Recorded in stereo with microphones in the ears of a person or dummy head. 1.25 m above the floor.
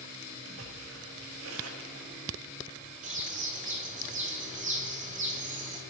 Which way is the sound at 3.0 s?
35° right (ahead or behind).